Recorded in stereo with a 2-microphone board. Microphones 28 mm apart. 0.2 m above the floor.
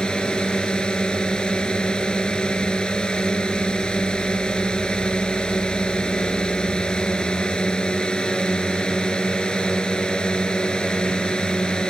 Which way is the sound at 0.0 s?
35° left (ahead or behind).